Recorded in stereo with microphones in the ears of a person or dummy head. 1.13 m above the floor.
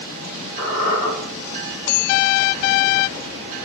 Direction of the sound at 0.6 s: 40° left (ahead or behind).